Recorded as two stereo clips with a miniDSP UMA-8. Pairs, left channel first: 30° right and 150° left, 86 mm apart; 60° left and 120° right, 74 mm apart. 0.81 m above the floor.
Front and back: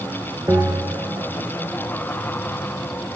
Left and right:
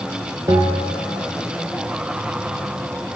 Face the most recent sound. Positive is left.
turn(degrees=-155)